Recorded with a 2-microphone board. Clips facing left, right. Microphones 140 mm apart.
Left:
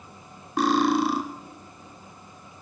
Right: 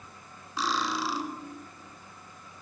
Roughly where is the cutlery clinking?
Left.